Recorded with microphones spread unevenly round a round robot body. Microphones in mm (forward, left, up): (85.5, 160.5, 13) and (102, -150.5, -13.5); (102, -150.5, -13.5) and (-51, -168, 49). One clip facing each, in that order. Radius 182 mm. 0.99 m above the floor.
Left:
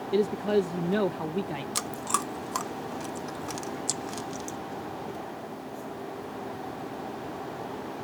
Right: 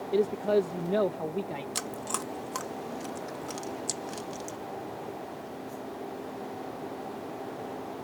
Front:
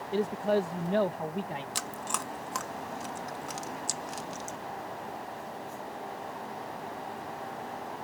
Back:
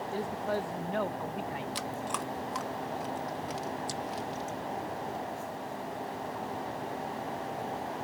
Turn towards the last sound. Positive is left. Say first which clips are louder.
# left 1 dB, back 2 dB
turn(degrees=20)